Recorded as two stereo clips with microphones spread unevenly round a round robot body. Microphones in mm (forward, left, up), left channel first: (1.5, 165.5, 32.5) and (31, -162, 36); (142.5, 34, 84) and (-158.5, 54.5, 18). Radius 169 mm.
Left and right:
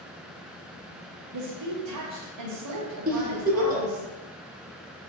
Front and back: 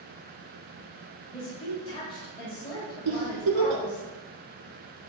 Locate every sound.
1.3 s a woman speaking: 85° right, 2 m
3.0 s a giggle: 150° right, 1.7 m